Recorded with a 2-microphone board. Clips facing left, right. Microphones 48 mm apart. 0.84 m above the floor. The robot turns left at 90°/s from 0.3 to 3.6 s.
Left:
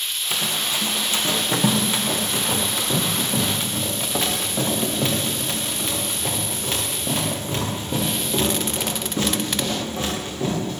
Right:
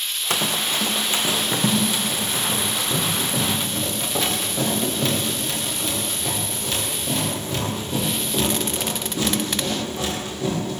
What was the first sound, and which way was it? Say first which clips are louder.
Running footsteps: right 2 dB; 75° right (ahead or behind).